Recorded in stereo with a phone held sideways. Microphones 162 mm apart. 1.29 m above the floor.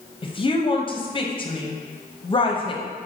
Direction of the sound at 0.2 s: 35° left (ahead or behind).